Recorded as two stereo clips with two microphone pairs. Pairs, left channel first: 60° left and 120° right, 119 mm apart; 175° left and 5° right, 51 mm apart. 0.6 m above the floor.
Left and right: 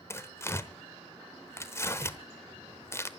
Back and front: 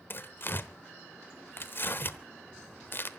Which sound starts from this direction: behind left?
Tearing paper, at 0.1 s.